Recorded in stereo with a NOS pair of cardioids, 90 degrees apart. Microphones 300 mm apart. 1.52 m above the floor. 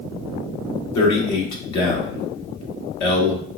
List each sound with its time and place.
0.9 s a man speaking: 70° left, 1.2 m